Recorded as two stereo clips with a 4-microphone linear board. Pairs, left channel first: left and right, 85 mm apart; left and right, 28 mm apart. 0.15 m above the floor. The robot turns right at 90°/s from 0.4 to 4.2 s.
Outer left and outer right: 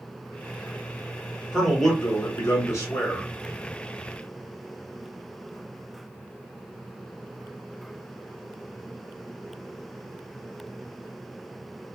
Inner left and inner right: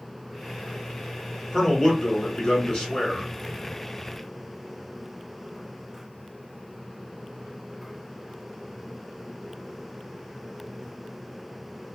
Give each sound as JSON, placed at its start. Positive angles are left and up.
{"t": 1.5, "sound": "a man speaking", "azimuth_deg": -20, "distance_m": 1.8}